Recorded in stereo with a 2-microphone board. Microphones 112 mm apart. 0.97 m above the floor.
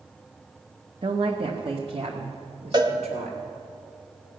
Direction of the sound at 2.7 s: 40° right (ahead or behind).